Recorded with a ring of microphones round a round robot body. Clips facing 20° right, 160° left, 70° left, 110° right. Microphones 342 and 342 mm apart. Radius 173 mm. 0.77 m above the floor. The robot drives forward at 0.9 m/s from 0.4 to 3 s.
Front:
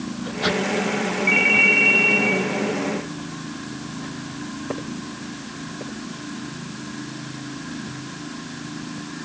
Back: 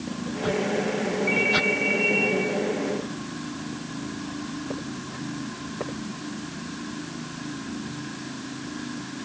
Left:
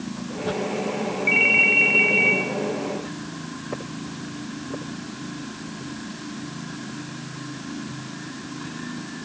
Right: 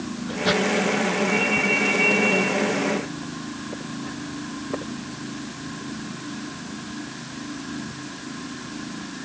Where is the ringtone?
30° left, 3.5 m; by 2.4 s 45° left, 2.5 m.